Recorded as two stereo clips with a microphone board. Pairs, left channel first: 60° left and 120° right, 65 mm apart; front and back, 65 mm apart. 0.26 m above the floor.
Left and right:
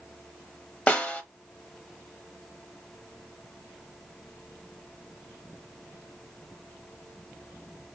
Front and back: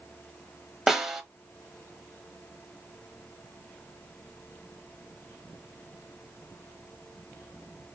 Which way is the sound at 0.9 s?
105° left.